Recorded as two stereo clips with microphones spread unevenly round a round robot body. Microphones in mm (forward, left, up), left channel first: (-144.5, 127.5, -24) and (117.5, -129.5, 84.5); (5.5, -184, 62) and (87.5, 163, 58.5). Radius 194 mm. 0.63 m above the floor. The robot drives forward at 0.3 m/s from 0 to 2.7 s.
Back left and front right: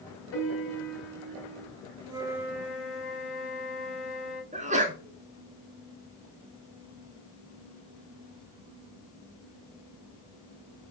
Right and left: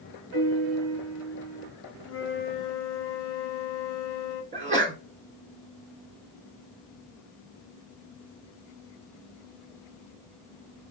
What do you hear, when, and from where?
0.3 s a piano: 115° left, 2 m; by 1.7 s 125° left, 2.5 m
2.0 s a flute: 140° right, 1.0 m; by 4.4 s 150° right, 1.1 m
4.5 s a sneeze: 45° left, 0.9 m